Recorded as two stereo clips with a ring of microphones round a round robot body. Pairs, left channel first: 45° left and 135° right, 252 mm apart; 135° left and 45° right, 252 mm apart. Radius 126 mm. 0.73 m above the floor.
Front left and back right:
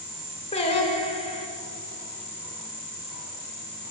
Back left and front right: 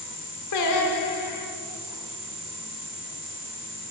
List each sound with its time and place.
0.5 s singing: 115° left, 1.1 m